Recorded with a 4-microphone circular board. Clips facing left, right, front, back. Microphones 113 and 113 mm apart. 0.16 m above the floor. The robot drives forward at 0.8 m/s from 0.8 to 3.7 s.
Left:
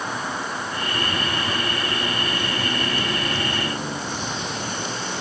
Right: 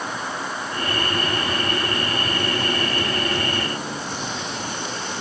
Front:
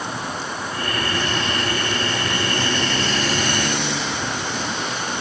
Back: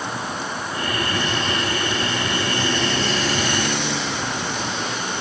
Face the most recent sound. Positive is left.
No sound to turn to.